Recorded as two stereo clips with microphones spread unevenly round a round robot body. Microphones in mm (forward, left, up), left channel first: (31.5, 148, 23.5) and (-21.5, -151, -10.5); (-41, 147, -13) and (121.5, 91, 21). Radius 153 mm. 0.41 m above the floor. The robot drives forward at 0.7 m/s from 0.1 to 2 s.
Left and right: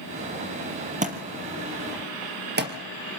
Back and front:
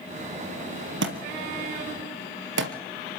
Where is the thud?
30° right, 3 m; by 3.2 s 40° right, 2.5 m.